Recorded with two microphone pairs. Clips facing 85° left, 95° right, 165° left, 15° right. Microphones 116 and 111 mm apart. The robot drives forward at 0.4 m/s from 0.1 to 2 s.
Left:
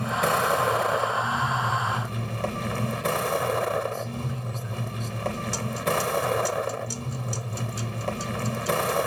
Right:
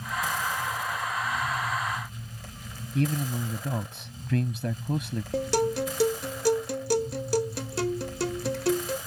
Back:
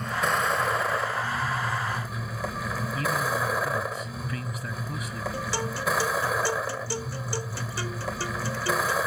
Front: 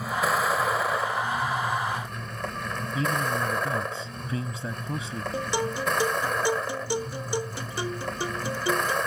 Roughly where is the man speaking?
Right.